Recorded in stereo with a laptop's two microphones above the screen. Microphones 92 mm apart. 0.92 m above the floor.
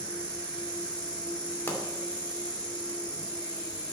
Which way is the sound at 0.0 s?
10° left (ahead or behind).